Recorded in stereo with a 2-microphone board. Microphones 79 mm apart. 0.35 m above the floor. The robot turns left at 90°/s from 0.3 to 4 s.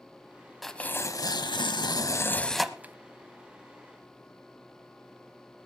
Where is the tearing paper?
Straight behind, 0.9 m; by 2.9 s 30° right, 0.9 m.